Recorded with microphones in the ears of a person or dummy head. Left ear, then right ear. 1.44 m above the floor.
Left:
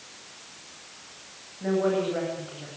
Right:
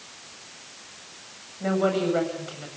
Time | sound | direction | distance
1.6 | a woman speaking | 80° right | 8.5 m